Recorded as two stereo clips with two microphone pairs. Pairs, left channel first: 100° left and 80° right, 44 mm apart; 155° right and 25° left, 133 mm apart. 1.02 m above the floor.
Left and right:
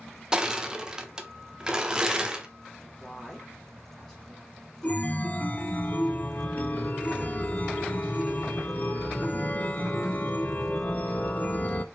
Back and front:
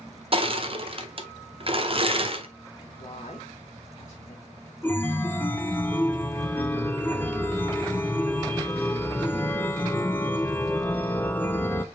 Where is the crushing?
10° right, 0.7 m.